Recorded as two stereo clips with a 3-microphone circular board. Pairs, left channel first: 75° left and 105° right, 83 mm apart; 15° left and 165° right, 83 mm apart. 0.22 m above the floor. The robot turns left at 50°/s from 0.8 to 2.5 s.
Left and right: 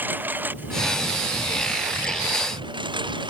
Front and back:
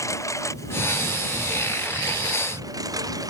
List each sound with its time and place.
0.0 s a lawn mower: 40° right; by 3.3 s 125° right